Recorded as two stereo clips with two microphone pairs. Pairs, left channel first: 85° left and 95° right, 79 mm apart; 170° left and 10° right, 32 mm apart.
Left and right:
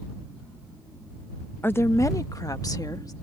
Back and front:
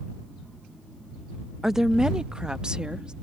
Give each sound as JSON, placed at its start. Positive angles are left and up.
{"t": 1.6, "sound": "a woman speaking", "azimuth_deg": 60}